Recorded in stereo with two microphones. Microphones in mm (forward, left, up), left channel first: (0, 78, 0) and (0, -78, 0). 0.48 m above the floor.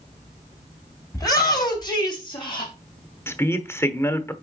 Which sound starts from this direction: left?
A shout, at 1.1 s.